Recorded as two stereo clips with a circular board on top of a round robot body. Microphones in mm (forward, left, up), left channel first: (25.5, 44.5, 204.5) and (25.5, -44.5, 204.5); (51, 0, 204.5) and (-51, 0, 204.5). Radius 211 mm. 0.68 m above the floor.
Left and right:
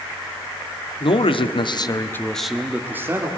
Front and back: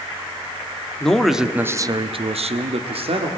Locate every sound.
1.0 s a man speaking: 85° left, 1.9 m; by 3.3 s 150° right, 2.5 m